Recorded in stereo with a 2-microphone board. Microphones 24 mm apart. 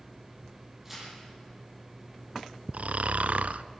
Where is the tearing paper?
10° right (ahead or behind), 9.5 m.